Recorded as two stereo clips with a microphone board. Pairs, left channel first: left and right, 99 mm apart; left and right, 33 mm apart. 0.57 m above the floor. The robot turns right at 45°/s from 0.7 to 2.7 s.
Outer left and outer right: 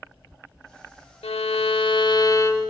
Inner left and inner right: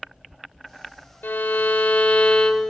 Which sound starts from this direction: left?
A violin, at 1.2 s.